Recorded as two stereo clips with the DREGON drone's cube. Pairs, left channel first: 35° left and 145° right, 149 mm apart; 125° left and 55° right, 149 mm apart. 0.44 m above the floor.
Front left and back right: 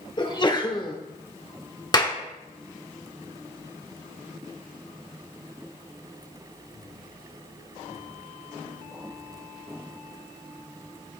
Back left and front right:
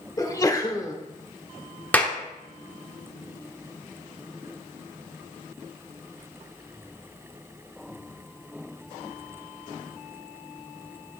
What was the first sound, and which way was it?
A sneeze, 70° left.